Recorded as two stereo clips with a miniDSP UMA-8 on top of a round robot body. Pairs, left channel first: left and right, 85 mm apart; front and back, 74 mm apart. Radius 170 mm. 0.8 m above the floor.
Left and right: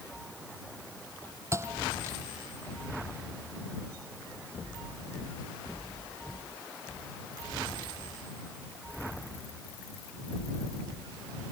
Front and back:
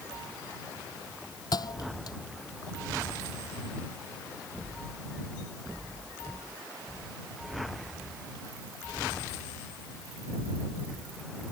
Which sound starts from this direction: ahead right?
A thud, at 1.5 s.